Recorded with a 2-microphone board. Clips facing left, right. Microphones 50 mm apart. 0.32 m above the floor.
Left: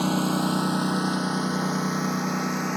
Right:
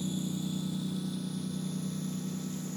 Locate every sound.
0.0 s a lawn mower: 75° left (ahead or behind); by 2.8 s 70° left (ahead or behind)